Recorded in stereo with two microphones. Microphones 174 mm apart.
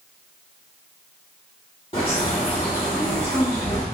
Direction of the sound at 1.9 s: 35° left (ahead or behind).